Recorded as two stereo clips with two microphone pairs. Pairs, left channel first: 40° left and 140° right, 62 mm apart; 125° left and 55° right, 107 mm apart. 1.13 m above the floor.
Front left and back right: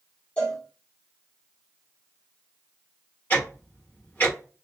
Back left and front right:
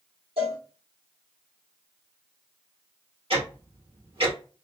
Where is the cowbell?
30° right, 1.2 m.